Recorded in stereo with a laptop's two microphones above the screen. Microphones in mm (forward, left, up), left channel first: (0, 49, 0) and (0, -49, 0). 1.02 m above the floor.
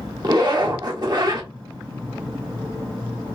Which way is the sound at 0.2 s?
45° right (ahead or behind).